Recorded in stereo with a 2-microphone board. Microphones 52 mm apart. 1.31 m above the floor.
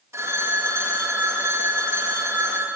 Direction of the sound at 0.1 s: 65° right (ahead or behind).